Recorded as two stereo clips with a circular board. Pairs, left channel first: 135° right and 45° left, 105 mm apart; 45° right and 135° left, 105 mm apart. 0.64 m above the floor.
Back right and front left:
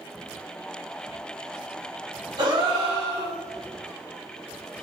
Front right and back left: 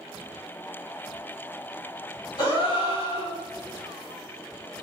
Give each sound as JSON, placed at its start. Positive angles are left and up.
{"t": 2.4, "sound": "a gasp", "azimuth_deg": 0, "distance_m": 1.9}